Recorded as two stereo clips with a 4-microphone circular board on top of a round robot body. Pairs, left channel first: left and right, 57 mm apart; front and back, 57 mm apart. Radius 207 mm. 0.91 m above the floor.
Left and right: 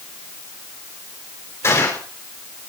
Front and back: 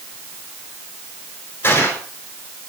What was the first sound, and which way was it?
A gunshot, 50° left.